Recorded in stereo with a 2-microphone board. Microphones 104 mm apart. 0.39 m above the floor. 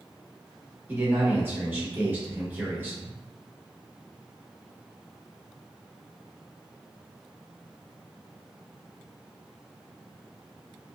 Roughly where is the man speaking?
Right.